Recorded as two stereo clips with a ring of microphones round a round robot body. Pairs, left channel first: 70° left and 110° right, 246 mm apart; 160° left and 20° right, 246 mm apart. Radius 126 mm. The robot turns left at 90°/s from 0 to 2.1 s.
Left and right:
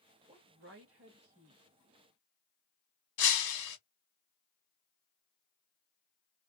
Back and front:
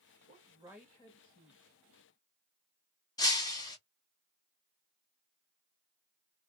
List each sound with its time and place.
0.3 s a woman speaking: 65° right, 1.2 m; by 1.6 s 175° left, 1.2 m
3.2 s breaking glass: 80° left, 1.2 m